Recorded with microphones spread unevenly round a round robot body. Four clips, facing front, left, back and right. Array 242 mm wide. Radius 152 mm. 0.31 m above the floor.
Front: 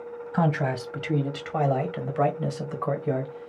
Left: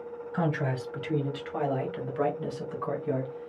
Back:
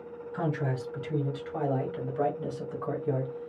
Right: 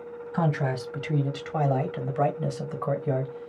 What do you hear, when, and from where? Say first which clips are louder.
0.3 s a man speaking: right 2 dB, front 6 dB; 10° right, 1.8 m; by 3.5 s 95° right, 1.6 m